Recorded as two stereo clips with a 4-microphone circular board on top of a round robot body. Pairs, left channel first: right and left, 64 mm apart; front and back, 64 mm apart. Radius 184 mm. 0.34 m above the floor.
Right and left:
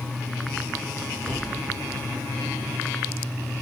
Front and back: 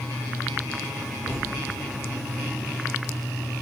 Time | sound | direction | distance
1.3 | a thud | 55° left | 8 m